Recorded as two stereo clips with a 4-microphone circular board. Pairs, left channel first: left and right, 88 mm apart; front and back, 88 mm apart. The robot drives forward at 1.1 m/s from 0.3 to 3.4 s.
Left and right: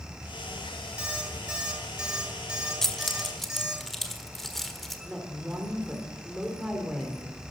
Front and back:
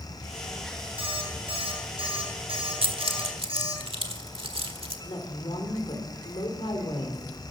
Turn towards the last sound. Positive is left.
turn(degrees=-10)